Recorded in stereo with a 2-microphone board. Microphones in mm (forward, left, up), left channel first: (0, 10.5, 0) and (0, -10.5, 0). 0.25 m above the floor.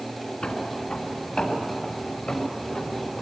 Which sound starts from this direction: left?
Footsteps, at 0.4 s.